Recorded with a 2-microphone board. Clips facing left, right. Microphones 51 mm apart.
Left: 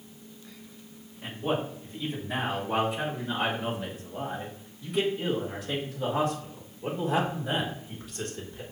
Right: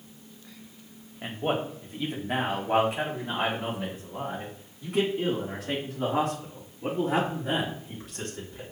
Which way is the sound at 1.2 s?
55° right (ahead or behind).